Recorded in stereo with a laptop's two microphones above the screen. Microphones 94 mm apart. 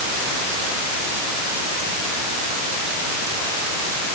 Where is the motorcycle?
I don't hear a motorcycle.